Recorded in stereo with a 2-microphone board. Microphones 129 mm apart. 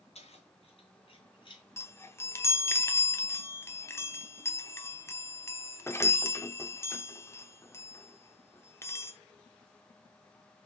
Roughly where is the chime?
Left.